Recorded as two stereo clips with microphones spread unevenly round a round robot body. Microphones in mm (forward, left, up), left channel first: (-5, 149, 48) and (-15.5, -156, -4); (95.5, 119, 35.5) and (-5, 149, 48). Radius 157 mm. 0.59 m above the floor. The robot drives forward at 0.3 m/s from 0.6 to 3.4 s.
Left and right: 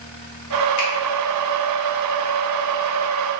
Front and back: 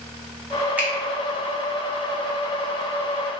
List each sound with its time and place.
0.8 s a finger snap: 85° left, 1.1 m